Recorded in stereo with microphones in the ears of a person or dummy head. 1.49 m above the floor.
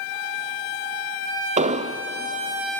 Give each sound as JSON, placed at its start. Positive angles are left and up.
{"t": 1.6, "sound": "an explosion", "side_deg": -40, "distance_m": 0.6}